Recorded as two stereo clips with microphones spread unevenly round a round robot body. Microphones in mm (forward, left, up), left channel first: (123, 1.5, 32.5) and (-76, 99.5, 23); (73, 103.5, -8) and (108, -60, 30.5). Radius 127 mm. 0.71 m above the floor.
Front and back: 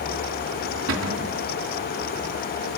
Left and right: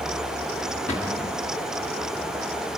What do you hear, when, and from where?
0.9 s a cupboard door: 170° left, 1.8 m